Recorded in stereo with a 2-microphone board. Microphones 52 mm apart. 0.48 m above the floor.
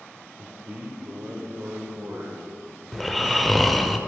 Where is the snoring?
Centre (ahead or behind), 0.7 m.